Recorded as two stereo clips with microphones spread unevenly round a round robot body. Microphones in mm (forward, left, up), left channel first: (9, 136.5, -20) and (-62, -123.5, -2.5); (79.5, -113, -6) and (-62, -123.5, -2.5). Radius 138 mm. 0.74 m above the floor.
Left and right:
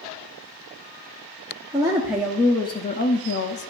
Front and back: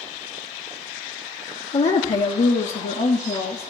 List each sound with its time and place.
1.7 s a woman speaking: 30° right, 1.0 m; by 3.7 s 55° left, 0.9 m